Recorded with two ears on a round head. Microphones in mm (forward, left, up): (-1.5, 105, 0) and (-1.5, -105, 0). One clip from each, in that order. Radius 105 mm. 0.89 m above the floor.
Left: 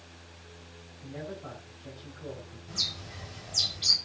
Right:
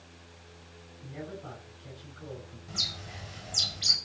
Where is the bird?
Centre (ahead or behind), 5.5 m.